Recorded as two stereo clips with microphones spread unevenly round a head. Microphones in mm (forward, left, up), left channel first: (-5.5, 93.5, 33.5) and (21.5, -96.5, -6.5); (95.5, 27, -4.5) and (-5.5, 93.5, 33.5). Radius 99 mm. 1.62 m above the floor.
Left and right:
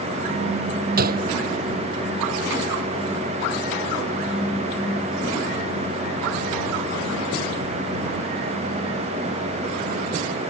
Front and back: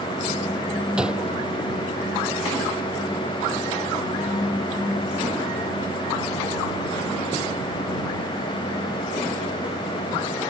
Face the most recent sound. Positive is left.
turn(degrees=-130)